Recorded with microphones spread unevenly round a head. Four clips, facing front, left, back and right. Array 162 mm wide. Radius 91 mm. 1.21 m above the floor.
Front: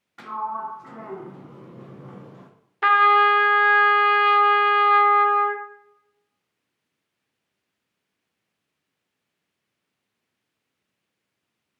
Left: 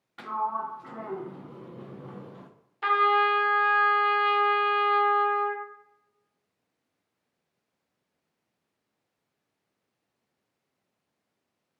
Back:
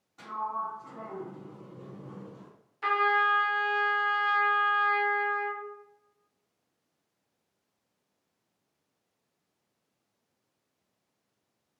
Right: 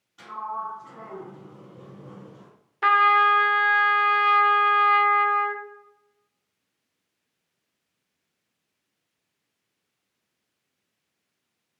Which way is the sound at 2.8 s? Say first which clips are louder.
Right 4 dB, front 10 dB; 35° right.